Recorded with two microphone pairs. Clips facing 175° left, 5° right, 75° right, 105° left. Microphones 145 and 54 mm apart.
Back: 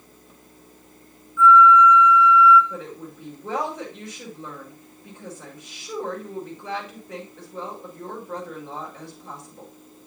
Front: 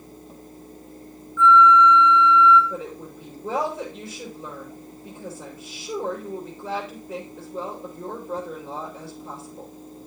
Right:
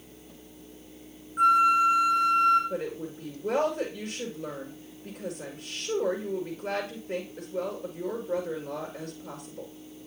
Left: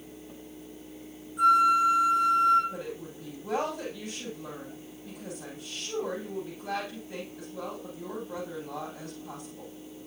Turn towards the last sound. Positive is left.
turn(degrees=-85)